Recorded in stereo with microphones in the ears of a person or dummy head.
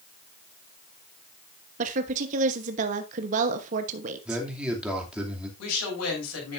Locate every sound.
1.8 s a woman speaking: 40° right (ahead or behind), 1.0 m
4.2 s a man speaking: 5° right (ahead or behind), 2.5 m
5.6 s a woman speaking: 85° left, 7 m